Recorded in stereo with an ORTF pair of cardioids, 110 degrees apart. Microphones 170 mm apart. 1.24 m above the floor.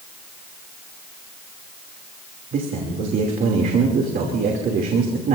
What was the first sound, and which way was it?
A man speaking, 55° right.